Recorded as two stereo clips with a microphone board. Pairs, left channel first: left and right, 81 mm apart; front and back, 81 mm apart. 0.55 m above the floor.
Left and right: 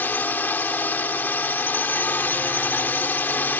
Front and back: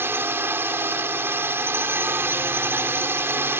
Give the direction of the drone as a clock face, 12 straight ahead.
7 o'clock.